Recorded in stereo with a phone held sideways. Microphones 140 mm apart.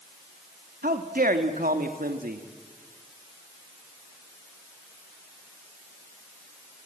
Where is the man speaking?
75° right (ahead or behind), 1.7 m.